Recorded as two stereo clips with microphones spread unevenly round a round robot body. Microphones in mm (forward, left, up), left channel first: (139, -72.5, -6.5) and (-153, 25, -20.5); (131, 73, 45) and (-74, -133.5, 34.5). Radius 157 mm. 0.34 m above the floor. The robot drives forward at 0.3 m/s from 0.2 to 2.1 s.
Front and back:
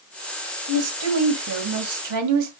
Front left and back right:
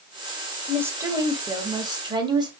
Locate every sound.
0.7 s a woman speaking: 145° left, 1.8 m; by 2.5 s 155° left, 2 m